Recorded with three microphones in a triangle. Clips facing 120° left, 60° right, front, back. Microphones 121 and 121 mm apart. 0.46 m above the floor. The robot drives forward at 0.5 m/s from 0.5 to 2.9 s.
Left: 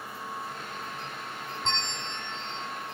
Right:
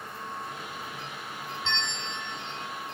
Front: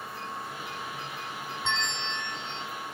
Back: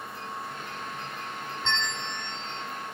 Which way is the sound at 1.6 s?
80° left.